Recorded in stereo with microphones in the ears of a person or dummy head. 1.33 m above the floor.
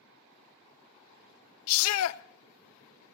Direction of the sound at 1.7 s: 80° left.